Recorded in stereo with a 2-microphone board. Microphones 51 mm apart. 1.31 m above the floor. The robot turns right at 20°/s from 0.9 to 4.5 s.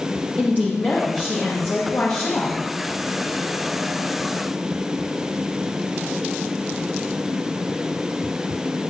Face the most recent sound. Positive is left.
turn(degrees=105)